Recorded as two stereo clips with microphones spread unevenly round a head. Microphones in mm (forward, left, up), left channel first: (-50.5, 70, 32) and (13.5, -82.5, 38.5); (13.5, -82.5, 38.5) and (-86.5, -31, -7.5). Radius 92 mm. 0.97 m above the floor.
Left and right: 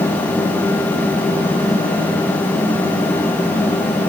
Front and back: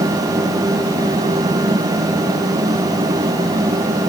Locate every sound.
Only background noise.